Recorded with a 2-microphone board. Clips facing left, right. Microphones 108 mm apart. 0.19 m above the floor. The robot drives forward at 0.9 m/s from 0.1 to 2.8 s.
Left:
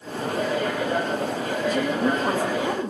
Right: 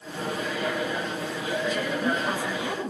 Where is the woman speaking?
50° left (ahead or behind), 6.5 m; by 2.9 s 45° left (ahead or behind), 7 m.